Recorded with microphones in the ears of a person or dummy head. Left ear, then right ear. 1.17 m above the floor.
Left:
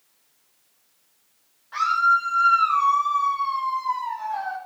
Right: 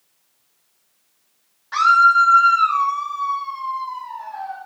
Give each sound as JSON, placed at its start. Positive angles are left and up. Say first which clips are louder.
{"t": 1.7, "sound": "a scream", "louder": "right 7 dB", "side_deg": -50, "distance_m": 1.9}